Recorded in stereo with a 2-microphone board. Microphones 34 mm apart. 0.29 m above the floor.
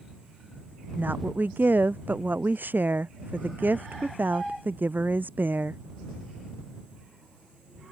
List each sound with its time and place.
0.9 s a woman speaking: 75° right (ahead or behind)